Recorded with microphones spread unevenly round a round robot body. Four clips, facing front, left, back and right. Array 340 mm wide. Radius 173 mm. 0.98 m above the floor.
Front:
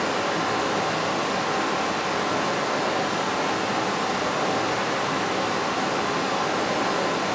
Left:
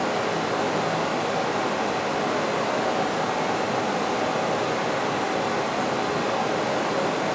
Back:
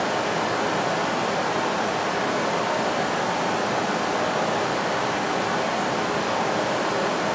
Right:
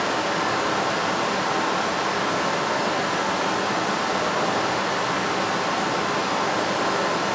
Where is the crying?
No crying in this recording.